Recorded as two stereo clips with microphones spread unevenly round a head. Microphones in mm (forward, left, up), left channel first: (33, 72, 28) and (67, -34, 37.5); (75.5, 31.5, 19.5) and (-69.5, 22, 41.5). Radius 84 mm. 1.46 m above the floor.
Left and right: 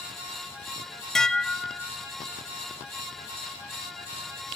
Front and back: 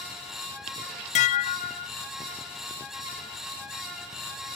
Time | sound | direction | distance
1.1 | dishes clattering | 20° left | 0.6 m